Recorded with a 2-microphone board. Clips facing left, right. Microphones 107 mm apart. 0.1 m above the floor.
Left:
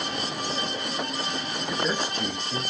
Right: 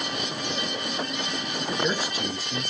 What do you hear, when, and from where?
1.7 s a man speaking: 15° right (ahead or behind), 1.3 m; by 2.7 s 5° left (ahead or behind), 1.4 m